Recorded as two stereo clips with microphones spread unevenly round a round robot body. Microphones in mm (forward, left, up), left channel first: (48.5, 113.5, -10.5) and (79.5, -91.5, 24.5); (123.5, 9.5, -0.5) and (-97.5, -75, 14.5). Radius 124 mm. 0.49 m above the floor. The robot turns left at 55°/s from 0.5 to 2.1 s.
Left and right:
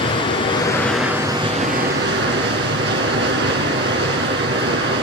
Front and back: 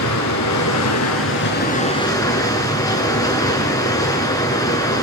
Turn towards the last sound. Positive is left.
turn(degrees=-55)